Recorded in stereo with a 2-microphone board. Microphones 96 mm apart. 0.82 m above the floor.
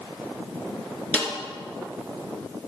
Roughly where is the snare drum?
Centre.